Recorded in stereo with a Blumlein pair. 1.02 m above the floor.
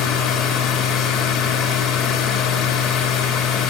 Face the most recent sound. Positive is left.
turn(degrees=25)